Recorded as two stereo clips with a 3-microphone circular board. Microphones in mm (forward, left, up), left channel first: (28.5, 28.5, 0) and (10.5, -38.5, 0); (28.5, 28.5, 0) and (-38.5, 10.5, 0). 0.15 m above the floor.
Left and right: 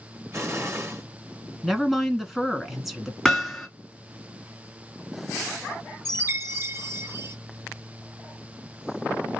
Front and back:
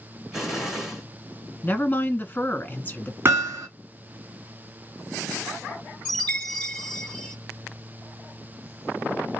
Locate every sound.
0.3 s an explosion: 85° right, 2.0 m
1.6 s a woman speaking: 20° right, 1.2 m
3.2 s hammering: 160° left, 1.7 m
6.0 s a chime: 60° right, 2 m